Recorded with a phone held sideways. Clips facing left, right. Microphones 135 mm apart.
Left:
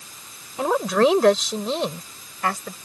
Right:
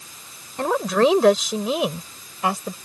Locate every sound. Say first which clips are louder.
0.6 s a woman speaking: even; 5° left (ahead or behind); by 2.7 s 20° right (ahead or behind)